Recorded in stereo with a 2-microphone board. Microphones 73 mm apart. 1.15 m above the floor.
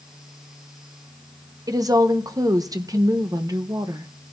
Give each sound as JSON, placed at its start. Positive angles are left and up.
{"t": 1.7, "sound": "a woman speaking", "side_deg": -55, "distance_m": 0.9}